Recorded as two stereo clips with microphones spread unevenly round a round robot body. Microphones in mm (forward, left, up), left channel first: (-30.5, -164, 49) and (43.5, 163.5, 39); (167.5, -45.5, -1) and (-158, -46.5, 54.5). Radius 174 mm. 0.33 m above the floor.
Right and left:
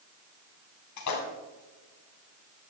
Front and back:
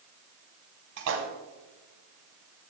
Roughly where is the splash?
Behind right.